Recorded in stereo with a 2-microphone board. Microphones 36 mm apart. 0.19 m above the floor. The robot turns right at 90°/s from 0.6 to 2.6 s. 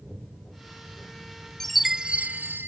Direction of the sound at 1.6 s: 170° left.